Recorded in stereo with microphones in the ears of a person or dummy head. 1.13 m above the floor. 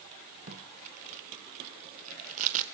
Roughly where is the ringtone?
I don't hear a ringtone.